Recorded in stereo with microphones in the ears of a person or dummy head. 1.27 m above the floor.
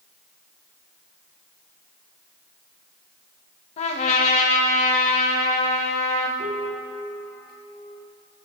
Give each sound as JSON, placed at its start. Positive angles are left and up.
{"t": 3.8, "sound": "a trumpet", "side_deg": 40, "distance_m": 1.1}
{"t": 6.4, "sound": "a piano", "side_deg": -35, "distance_m": 2.0}